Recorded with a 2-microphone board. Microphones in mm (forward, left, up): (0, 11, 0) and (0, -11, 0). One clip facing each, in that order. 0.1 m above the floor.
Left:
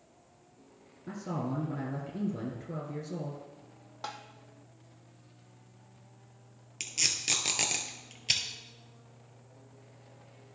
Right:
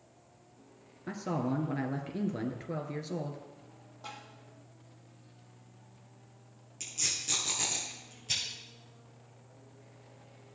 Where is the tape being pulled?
50° left (ahead or behind), 1.5 m.